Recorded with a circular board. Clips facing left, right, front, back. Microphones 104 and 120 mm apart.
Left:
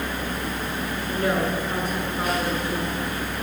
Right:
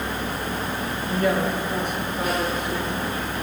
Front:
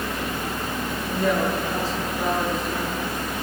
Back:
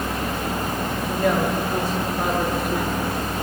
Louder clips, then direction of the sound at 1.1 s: Right 2 dB, back 1 dB; 140° left.